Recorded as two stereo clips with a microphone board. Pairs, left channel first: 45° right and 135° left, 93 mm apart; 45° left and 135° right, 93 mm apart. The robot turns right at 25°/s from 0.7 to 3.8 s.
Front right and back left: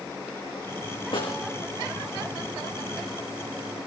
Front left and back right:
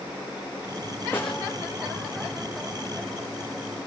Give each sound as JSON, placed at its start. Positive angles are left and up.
{"t": 1.1, "sound": "a snare drum", "azimuth_deg": -25, "distance_m": 5.5}